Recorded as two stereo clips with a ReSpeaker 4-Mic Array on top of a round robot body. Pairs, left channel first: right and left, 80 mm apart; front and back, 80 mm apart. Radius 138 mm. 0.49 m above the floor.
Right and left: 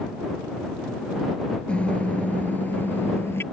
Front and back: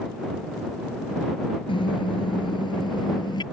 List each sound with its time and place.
1.7 s a car horn: 15° right; by 3.4 s 30° right